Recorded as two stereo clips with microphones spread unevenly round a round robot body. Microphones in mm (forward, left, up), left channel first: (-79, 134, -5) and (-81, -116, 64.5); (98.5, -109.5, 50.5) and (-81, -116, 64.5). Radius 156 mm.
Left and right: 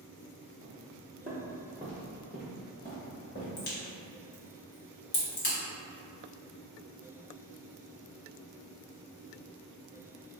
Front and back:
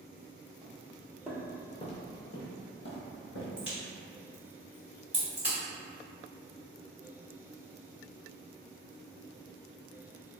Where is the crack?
95° left, 1.3 m.